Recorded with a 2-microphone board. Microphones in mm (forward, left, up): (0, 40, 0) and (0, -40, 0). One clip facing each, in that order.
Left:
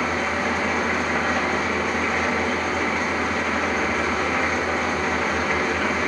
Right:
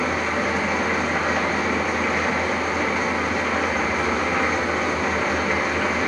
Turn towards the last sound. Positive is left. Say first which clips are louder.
# right 1 dB
turn(degrees=0)  # may be behind; listen again after turning